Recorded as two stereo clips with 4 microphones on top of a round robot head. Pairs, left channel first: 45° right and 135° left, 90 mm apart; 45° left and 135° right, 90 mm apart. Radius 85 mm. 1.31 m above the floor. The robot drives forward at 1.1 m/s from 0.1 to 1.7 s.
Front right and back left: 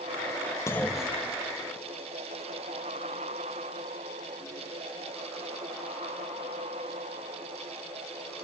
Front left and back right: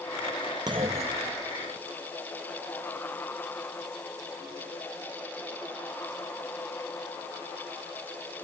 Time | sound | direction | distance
0.7 | a clunk | 95° right | 0.6 m